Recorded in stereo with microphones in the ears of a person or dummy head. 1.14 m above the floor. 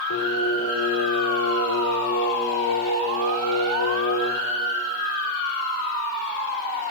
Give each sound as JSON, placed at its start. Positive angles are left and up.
{"t": 0.1, "sound": "singing", "side_deg": 80, "distance_m": 5.0}